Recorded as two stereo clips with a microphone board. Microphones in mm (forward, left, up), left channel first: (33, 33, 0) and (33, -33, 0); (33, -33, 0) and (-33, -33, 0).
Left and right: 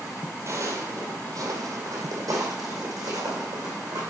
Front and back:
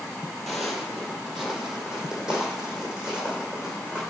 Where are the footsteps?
85° right, 1.5 m; by 4.0 s 105° right, 3.5 m.